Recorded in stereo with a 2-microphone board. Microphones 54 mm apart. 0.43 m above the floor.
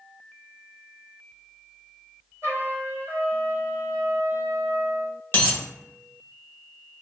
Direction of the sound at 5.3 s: 40° left (ahead or behind).